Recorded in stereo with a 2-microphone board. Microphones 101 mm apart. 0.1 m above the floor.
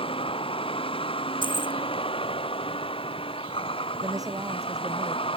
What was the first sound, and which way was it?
A vehicle, 65° left (ahead or behind).